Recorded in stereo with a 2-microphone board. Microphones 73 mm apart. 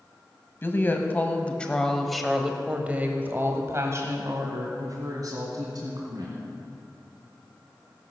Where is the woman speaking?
30° left (ahead or behind), 1.6 m; by 6.4 s 60° right (ahead or behind), 2.5 m.